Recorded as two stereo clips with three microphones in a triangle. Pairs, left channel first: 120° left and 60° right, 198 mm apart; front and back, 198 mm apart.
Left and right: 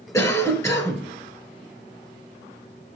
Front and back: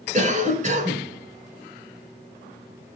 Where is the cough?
175° right, 1.3 m.